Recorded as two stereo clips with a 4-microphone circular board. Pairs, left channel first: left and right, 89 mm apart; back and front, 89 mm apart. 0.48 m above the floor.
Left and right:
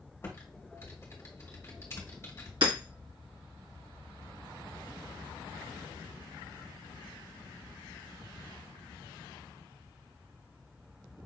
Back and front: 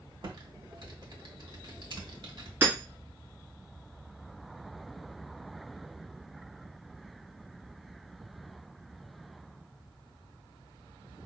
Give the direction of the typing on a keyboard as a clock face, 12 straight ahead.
11 o'clock.